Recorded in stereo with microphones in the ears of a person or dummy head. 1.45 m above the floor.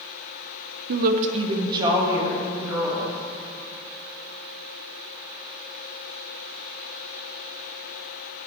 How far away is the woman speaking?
About 0.6 m.